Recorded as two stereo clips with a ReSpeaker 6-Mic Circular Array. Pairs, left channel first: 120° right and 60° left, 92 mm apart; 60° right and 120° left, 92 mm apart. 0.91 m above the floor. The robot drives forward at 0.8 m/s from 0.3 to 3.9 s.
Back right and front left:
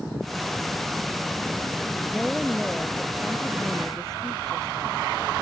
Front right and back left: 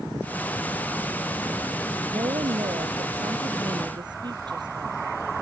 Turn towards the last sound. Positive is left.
turn(degrees=155)